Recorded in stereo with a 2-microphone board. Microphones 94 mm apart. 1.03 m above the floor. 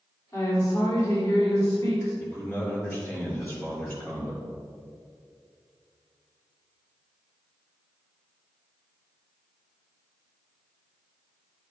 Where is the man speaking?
25° left (ahead or behind), 3 m.